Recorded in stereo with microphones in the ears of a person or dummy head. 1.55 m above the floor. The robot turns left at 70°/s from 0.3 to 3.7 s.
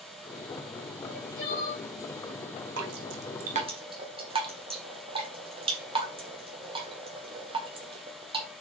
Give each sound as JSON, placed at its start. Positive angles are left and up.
{"t": 1.0, "sound": "crying", "azimuth_deg": 60, "distance_m": 3.5}
{"t": 2.8, "sound": "dripping", "side_deg": -80, "distance_m": 1.3}